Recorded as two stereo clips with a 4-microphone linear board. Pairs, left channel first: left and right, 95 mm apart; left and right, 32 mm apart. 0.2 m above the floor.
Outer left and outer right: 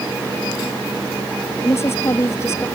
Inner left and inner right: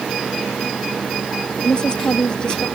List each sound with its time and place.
1.6 s a woman speaking: 30° left (ahead or behind)